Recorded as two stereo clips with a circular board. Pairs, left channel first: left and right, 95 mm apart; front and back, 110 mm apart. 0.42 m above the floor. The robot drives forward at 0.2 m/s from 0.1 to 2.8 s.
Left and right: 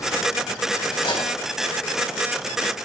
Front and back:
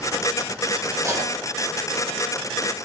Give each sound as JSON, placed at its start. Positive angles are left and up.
{"t": 0.9, "sound": "cutlery clinking", "azimuth_deg": 120, "distance_m": 1.3}